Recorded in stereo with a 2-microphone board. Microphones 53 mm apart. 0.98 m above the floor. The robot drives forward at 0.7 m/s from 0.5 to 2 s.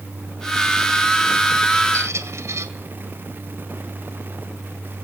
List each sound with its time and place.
1.9 s a squeak: 65° right (ahead or behind), 2.5 m